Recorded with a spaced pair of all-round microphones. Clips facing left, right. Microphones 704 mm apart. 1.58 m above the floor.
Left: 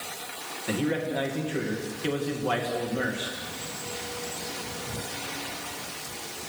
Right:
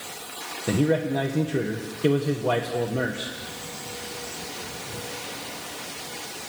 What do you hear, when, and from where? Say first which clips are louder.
0.7 s a man speaking: right 5 dB; 65° right (ahead or behind), 1.8 m